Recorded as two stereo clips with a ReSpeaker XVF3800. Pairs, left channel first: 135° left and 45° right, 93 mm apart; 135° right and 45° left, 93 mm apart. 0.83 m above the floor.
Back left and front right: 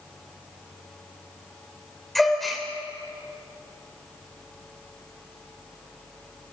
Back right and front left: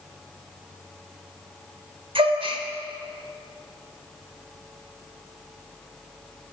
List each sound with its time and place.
2.1 s a gasp: 50° left, 3.5 m